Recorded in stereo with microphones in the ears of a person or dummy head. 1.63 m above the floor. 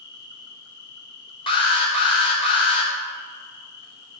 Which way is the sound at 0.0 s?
55° left (ahead or behind).